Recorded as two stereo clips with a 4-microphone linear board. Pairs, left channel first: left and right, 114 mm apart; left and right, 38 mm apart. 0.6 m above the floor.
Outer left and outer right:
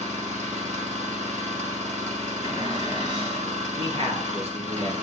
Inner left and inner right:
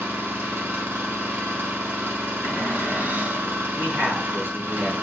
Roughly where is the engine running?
Right.